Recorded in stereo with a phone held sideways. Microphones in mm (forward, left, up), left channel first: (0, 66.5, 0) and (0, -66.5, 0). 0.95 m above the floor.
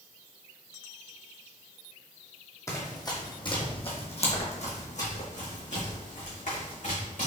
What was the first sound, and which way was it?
Running footsteps, 20° left (ahead or behind).